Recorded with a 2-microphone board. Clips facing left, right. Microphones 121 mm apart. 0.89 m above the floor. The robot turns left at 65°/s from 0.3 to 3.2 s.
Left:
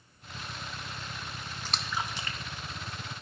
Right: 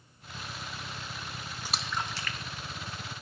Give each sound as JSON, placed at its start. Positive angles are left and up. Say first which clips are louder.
{"t": 1.6, "sound": "a splash", "louder": "even", "side_deg": -10, "distance_m": 0.6}